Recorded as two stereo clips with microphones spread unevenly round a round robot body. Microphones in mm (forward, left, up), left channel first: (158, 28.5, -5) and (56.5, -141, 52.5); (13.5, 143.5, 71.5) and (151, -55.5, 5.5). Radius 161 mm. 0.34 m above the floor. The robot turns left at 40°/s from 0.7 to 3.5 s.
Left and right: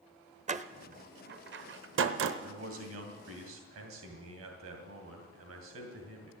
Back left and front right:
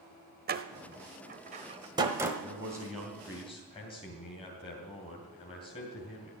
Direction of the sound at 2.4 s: 115° right.